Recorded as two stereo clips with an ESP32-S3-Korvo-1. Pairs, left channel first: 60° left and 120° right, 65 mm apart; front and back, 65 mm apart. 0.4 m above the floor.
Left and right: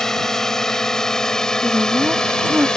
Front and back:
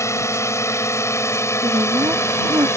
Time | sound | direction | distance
0.0 | a drone | 20° right | ?
1.6 | a woman speaking | 175° left | ?